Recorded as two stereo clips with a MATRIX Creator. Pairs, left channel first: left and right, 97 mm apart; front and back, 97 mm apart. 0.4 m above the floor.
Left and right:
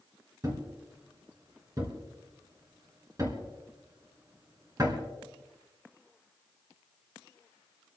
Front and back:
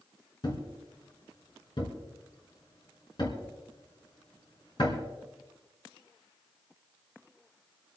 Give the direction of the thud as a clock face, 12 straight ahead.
1 o'clock.